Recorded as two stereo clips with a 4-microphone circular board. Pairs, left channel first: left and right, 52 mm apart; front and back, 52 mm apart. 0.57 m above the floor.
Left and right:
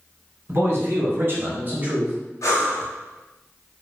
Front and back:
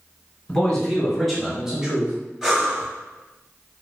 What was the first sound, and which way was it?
A man speaking, 70° right.